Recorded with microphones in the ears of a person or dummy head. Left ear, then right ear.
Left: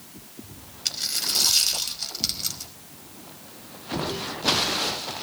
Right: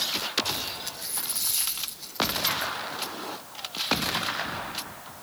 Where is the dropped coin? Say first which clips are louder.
Left 8 dB; 55° left (ahead or behind), 5 m.